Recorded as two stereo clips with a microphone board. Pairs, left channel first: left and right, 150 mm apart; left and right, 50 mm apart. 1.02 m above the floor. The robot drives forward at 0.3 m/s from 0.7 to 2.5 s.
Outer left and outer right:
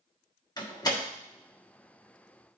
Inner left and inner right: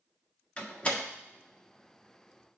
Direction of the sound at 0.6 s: 30° left (ahead or behind).